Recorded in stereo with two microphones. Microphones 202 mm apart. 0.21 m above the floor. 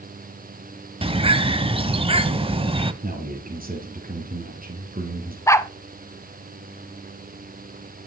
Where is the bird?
25° right (ahead or behind), 0.8 m.